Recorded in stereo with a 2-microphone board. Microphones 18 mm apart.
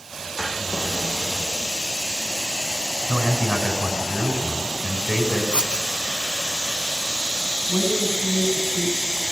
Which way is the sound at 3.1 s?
75° right (ahead or behind).